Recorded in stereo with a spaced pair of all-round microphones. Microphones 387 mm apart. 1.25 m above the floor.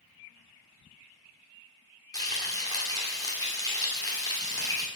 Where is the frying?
10° left (ahead or behind), 2.0 m.